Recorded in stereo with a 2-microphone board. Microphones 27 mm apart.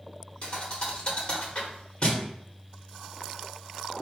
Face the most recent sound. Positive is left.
turn(degrees=35)  # may be behind; listen again after turning